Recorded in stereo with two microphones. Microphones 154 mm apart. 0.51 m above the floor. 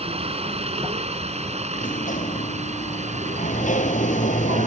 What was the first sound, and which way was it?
A helicopter, 40° right (ahead or behind).